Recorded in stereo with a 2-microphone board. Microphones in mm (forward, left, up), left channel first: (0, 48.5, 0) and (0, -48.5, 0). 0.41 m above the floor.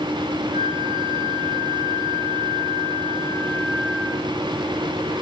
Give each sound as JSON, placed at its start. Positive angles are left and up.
{"t": 0.5, "sound": "a flute", "side_deg": -25, "distance_m": 6.0}